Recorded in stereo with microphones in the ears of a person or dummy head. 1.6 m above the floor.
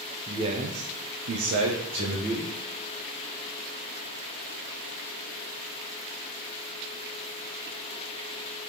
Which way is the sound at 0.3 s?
25° right (ahead or behind).